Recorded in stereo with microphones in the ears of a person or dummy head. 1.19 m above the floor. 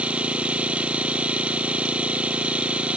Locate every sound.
0.0 s an engine running: 10° right (ahead or behind)